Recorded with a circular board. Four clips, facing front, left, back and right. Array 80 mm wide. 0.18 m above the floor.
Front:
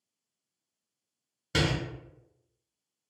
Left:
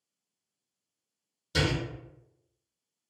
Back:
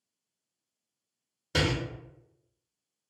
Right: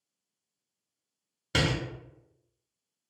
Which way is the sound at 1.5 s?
70° right.